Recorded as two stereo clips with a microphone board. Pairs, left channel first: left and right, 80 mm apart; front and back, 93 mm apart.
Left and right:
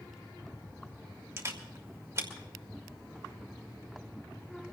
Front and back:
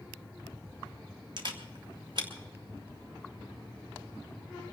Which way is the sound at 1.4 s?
145° right.